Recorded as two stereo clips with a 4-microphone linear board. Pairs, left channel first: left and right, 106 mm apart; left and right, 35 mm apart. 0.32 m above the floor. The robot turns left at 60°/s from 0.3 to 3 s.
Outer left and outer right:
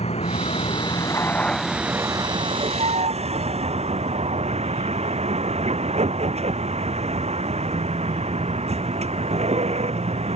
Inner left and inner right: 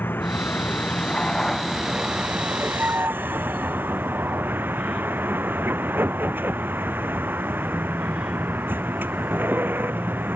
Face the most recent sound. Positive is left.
turn(degrees=-85)